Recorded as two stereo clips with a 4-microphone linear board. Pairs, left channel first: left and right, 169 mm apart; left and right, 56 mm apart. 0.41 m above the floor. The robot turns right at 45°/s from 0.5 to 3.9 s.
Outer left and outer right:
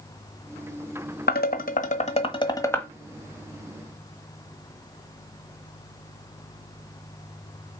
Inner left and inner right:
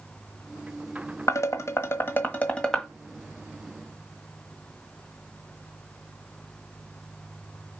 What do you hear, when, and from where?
1.3 s dishes clattering: 70° left (ahead or behind), 1.3 m; by 2.9 s 10° left (ahead or behind), 1.3 m